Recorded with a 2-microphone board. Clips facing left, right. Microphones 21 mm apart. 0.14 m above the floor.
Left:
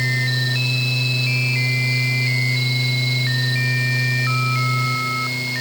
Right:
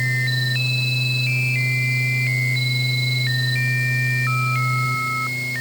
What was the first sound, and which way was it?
Only background noise.